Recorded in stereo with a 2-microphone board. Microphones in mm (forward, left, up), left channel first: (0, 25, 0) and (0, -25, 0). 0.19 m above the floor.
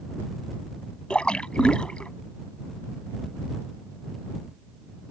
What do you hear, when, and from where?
1.1 s a splash: 20° left (ahead or behind)